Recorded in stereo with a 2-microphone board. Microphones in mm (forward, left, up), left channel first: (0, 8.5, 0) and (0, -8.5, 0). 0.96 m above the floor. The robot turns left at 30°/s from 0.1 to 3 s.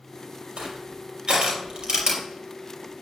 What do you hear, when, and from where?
0.6 s crushing: 80° right, 5 m; by 2.2 s 30° right (ahead or behind), 5 m